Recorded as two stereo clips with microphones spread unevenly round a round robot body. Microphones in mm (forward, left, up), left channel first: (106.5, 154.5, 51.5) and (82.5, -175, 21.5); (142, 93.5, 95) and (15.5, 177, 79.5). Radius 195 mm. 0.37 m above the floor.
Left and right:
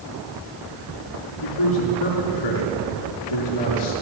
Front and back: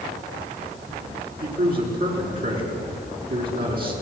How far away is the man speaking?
About 6.5 m.